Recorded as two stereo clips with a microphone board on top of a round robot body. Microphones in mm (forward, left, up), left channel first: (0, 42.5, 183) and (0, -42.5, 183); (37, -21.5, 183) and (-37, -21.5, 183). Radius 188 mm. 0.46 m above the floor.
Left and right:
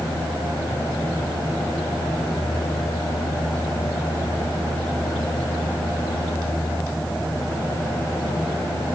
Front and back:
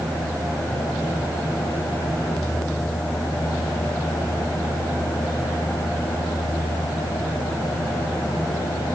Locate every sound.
Only background noise.